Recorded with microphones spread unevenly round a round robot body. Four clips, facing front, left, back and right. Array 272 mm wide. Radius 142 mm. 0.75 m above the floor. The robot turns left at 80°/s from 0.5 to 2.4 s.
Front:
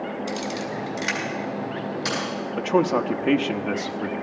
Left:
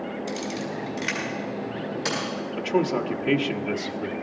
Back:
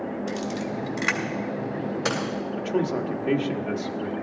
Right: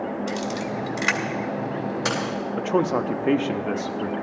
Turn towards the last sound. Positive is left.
turn(degrees=-40)